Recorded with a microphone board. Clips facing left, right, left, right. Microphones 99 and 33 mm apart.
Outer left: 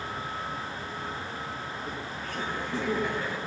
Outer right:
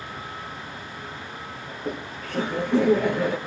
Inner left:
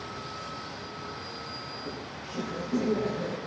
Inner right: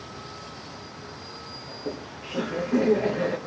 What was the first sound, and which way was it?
Laughter, 70° right (ahead or behind).